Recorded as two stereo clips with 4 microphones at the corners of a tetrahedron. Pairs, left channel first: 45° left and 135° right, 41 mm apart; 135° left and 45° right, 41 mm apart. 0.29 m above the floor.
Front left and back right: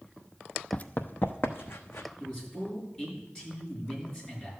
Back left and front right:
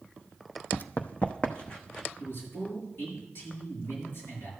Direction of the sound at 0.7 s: 95° left.